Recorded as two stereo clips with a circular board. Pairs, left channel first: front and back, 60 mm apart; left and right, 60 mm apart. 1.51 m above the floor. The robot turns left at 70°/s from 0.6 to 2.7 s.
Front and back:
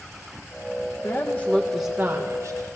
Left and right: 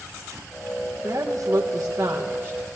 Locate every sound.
1.0 s a woman speaking: 35° right, 2.0 m; by 2.7 s 145° right, 2.0 m